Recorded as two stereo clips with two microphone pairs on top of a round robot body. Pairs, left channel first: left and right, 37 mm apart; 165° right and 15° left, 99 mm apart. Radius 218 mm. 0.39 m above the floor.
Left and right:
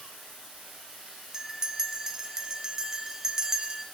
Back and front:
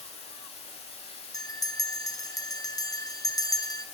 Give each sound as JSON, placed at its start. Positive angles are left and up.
{"t": 0.0, "sound": "running water", "azimuth_deg": -170, "distance_m": 0.8}
{"t": 1.3, "sound": "a bell", "azimuth_deg": -165, "distance_m": 0.6}